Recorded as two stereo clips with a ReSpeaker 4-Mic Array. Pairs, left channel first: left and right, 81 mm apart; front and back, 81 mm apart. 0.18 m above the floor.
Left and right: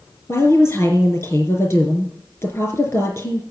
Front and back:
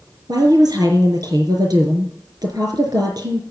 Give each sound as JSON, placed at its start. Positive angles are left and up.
{"t": 0.3, "sound": "a woman speaking", "azimuth_deg": 145, "distance_m": 4.5}